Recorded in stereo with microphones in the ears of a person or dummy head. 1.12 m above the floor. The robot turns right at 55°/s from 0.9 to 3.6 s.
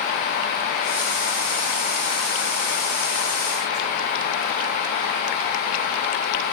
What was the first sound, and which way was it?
Only background noise.